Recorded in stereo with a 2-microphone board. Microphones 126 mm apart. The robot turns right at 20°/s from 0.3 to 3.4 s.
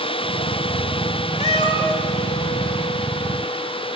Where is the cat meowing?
45° left (ahead or behind), 0.8 m; by 2.0 s 35° left (ahead or behind), 0.8 m.